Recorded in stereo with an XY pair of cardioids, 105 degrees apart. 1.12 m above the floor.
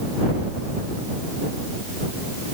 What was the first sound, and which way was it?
Only background noise.